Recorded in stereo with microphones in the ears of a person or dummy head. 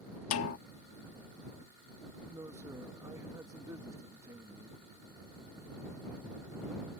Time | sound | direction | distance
0.3 | a snare drum | 80° left | ?
2.3 | a man speaking | 15° right (ahead or behind) | ?